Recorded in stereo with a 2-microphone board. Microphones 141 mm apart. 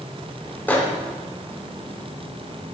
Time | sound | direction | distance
0.7 | a microwave | 15° left (ahead or behind) | 0.6 m